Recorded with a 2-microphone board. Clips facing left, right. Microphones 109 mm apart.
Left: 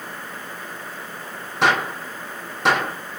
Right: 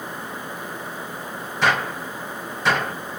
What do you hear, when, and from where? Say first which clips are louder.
1.6 s a gunshot: left 2 dB; 70° left (ahead or behind), 3 m